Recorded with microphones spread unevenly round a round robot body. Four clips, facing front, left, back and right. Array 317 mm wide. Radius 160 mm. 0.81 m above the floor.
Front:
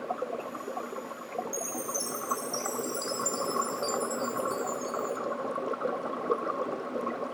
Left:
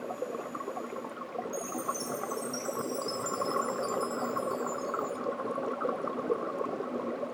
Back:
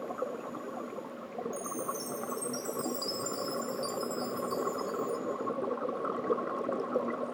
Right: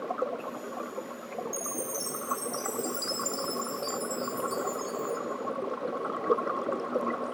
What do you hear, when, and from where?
1.5 s a chime: 110° right, 1.7 m